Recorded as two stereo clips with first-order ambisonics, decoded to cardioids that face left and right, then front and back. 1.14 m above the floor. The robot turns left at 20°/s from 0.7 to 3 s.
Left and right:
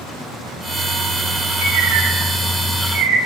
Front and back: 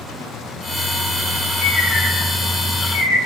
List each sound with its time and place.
1.6 s a bird: 75° right, 6.5 m; by 3.2 s 100° right, 6.5 m